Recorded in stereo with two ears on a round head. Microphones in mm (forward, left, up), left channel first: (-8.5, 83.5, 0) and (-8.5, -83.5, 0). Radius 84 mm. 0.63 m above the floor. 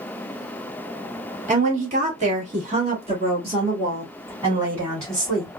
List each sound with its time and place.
1.5 s a woman speaking: 35° right (ahead or behind), 1.4 m; by 5.5 s 15° right (ahead or behind), 2.5 m